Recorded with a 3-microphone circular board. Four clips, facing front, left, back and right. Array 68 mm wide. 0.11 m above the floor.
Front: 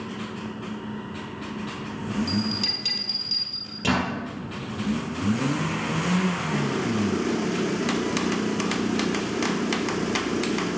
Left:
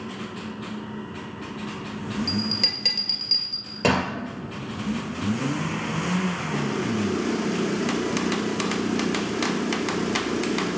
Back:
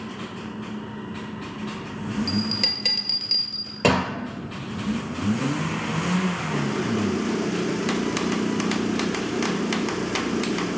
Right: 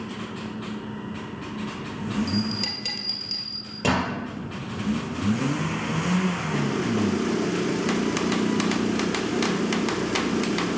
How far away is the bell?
About 2 m.